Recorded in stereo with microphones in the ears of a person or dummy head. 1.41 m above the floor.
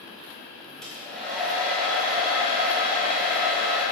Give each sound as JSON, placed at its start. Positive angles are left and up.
{"t": 0.8, "sound": "a hair dryer", "side_deg": -5, "distance_m": 1.7}